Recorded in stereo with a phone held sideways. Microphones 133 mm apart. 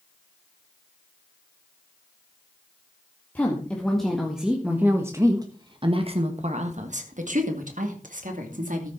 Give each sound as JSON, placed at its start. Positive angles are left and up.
{"t": 3.4, "sound": "a woman speaking", "side_deg": 10, "distance_m": 1.9}